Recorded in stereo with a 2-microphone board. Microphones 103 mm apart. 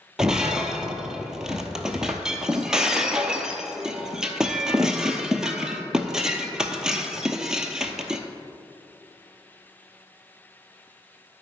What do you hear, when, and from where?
0.2 s breaking glass: 5° right (ahead or behind), 0.7 m